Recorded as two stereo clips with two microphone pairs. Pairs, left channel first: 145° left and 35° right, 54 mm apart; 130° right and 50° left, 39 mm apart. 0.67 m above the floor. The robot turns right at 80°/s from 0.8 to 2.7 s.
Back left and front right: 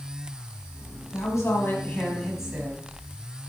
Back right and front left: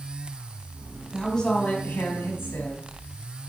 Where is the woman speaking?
140° left, 5 m; by 2.9 s 95° right, 5 m.